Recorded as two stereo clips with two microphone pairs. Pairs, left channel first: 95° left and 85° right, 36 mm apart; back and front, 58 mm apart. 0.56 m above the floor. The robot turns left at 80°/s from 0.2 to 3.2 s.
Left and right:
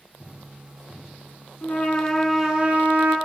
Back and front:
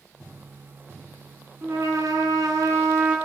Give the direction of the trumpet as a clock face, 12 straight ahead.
10 o'clock.